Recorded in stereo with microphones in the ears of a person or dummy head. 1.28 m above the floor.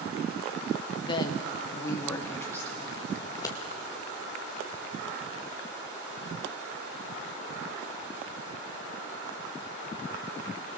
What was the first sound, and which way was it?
A woman speaking, 30° left (ahead or behind).